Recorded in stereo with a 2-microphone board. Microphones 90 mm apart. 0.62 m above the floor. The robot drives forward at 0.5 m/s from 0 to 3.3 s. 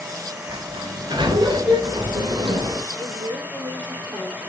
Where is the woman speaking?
45° right (ahead or behind), 7 m; by 4.5 s 40° right (ahead or behind), 7 m.